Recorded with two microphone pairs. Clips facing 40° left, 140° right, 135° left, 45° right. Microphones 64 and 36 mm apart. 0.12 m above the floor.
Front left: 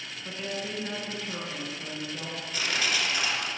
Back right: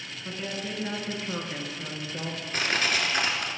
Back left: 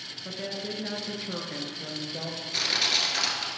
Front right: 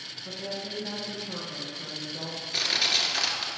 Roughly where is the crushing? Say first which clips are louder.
Back right 2 dB, even; behind right.